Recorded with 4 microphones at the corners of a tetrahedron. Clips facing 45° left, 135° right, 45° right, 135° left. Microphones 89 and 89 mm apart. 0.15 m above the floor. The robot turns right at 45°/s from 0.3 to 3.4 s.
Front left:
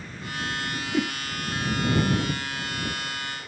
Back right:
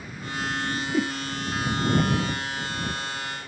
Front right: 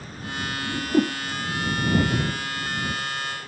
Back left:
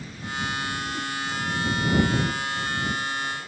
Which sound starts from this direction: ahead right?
A whoosh, at 0.7 s.